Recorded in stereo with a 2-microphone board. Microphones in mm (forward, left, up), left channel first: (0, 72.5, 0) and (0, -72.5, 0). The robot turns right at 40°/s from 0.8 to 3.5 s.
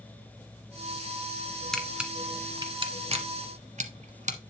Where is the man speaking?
No man speaking in this recording.